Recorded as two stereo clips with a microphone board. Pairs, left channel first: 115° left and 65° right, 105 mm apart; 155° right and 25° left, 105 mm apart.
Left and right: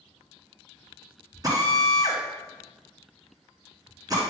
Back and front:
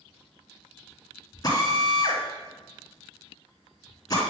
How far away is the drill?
About 1.9 m.